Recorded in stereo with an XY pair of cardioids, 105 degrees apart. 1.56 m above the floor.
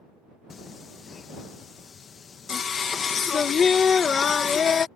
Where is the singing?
45° left.